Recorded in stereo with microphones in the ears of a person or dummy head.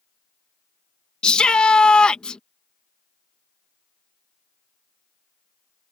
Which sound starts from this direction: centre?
A shout, at 1.2 s.